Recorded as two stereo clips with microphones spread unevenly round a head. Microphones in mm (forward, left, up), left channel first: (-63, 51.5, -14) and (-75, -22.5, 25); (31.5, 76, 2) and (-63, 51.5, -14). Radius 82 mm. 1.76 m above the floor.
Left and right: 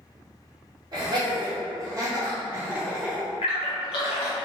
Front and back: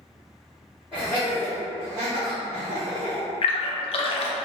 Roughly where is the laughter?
Ahead right.